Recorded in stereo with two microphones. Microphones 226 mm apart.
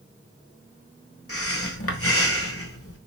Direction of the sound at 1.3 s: 80° left.